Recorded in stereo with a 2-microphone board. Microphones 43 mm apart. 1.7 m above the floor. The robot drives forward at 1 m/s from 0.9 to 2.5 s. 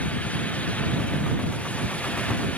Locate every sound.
Only background noise.